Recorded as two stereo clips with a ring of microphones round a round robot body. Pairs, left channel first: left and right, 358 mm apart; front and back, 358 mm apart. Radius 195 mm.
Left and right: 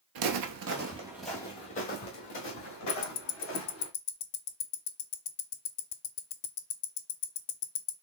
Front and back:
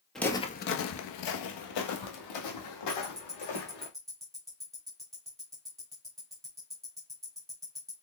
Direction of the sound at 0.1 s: 90° right.